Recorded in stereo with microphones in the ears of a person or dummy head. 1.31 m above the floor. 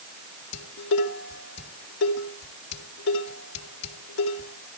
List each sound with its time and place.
0.5 s dishes clattering: 65° left (ahead or behind), 2 m